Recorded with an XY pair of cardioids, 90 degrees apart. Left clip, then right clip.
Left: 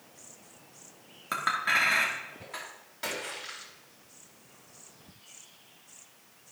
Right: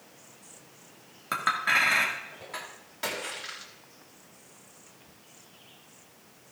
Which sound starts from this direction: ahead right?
A splash, at 3.0 s.